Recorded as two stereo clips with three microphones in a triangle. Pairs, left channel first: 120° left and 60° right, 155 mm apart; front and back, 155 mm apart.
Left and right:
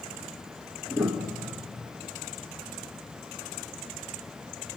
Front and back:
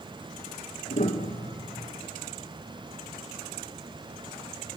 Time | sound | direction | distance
0.9 | a piano | 30° left | 2.5 m